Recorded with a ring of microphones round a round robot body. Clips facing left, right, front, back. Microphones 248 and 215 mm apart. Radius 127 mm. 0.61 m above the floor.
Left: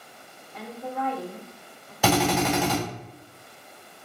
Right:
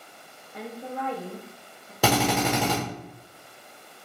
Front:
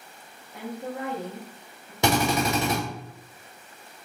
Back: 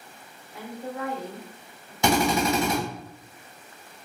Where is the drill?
40° right, 1.5 m.